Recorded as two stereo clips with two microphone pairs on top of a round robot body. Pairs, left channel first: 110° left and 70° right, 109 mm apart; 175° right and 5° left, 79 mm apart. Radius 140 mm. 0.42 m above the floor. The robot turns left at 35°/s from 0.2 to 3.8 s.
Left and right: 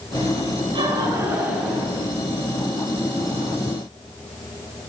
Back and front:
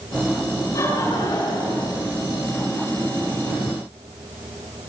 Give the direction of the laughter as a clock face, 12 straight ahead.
4 o'clock.